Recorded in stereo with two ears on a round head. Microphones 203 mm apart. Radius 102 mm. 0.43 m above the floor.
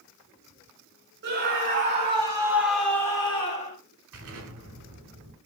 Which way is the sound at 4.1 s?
60° right (ahead or behind).